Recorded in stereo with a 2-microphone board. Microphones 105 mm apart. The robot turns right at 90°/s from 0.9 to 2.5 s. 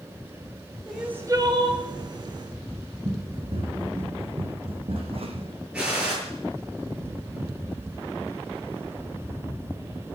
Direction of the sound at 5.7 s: 10° right (ahead or behind).